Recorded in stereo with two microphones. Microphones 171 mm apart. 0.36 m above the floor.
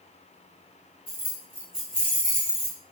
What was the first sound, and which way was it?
Keys jangling, 25° right (ahead or behind).